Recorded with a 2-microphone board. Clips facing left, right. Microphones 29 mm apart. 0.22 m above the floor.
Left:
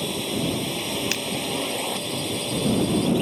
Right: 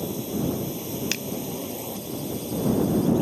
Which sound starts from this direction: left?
A drone, at 0.0 s.